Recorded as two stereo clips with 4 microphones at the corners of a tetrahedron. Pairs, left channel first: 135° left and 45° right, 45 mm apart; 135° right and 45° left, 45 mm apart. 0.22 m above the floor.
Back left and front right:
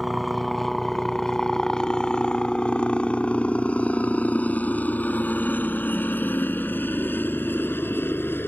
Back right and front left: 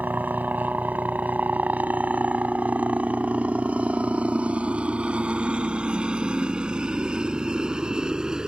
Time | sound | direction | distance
0.0 | a helicopter | 45° left | ?